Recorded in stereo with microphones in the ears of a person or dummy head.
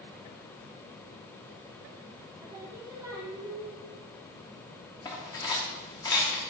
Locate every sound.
2.4 s singing: 20° right (ahead or behind), 1.2 m
5.0 s cutlery clinking: 10° left (ahead or behind), 0.8 m